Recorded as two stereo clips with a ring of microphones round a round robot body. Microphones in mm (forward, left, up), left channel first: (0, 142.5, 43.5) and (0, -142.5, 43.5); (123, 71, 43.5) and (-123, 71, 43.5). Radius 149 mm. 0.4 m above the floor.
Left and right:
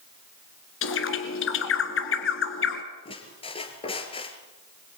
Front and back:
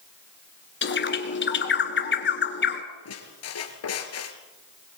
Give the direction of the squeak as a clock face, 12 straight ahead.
11 o'clock.